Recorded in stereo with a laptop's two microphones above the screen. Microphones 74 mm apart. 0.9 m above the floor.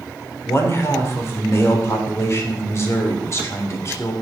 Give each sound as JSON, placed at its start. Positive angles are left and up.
{"t": 0.5, "sound": "a man speaking", "side_deg": 35, "distance_m": 3.0}